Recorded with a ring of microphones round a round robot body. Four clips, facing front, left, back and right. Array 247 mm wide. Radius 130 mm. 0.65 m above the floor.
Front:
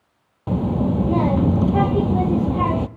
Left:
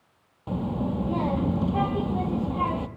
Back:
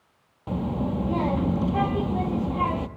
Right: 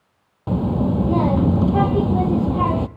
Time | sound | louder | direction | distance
0.5 | a child speaking | right 8 dB, front 6 dB | 50° right | 0.6 m